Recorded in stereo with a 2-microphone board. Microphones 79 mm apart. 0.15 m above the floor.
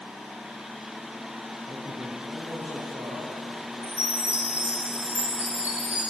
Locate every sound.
1.7 s a man speaking: 50° right (ahead or behind), 3 m; by 3.7 s 40° right (ahead or behind), 4.5 m
3.8 s a chime: 25° right (ahead or behind), 4.5 m